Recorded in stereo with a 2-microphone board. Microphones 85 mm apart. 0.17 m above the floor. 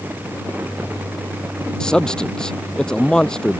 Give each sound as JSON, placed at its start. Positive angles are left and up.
{"t": 1.8, "sound": "a man speaking", "side_deg": 10}